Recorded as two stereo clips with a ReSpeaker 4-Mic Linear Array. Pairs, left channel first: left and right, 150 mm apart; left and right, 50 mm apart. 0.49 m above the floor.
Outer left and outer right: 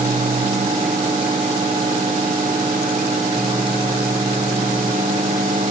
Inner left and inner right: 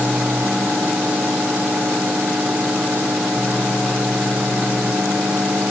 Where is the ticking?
I don't hear ticking.